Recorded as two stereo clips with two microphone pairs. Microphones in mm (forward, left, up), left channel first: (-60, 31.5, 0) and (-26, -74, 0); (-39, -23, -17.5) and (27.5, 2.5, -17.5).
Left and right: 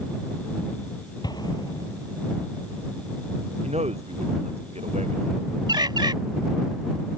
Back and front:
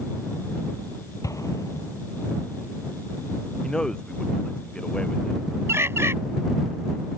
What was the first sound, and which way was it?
An explosion, 160° left.